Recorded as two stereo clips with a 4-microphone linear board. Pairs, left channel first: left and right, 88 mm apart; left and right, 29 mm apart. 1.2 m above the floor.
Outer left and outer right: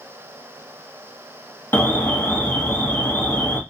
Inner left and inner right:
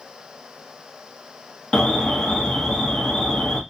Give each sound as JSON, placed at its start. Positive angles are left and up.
{"t": 1.7, "sound": "an alarm", "side_deg": 25, "distance_m": 0.8}